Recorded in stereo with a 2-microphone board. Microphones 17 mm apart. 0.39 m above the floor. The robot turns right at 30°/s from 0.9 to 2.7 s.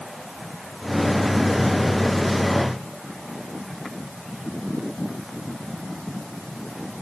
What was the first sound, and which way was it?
Only background noise.